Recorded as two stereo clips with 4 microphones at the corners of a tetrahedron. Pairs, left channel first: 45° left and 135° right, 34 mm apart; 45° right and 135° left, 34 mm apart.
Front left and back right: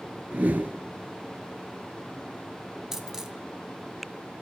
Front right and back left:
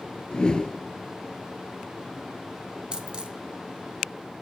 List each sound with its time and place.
0.3 s a whoosh: 105° right, 0.6 m
2.9 s a dropped coin: 160° left, 0.7 m